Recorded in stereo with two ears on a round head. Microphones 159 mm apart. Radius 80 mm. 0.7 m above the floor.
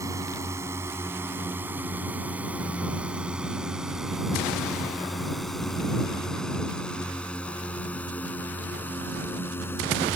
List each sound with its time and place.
0.0 s a drone: 20° right (ahead or behind); by 10.2 s 15° left (ahead or behind)